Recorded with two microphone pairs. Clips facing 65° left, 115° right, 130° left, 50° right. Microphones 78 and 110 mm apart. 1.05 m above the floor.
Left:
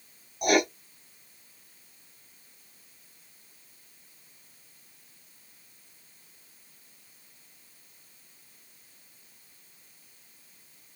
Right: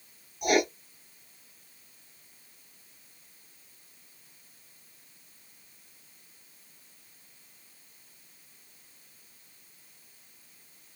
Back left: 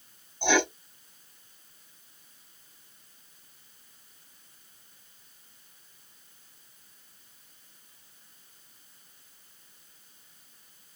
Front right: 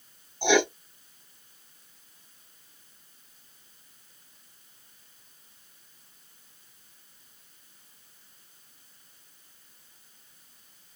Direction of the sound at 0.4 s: 30° left.